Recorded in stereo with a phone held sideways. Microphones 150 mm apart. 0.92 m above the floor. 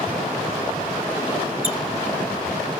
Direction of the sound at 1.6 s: 45° right (ahead or behind).